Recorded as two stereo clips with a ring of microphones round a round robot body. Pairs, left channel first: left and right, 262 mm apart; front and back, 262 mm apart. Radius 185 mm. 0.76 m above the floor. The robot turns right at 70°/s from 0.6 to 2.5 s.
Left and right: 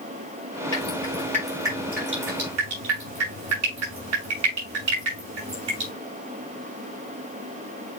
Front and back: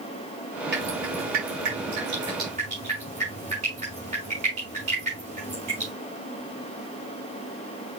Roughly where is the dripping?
Behind left.